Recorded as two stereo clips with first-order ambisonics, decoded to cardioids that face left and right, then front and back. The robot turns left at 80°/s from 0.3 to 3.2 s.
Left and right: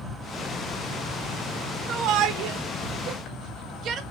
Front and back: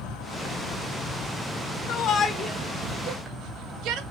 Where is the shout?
40° right, 1.6 m; by 4.0 s 145° right, 1.6 m.